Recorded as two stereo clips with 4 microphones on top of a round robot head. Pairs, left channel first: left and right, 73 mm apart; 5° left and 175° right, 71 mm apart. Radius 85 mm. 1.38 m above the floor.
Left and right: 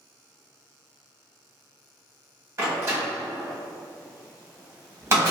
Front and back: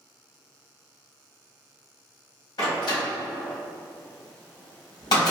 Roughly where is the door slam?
Ahead right.